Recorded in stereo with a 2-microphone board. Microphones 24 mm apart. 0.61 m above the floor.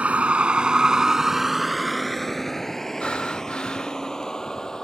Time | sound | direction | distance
0.0 | a vehicle | 65° right (ahead or behind) | ?
3.0 | breathing | 50° left (ahead or behind) | ?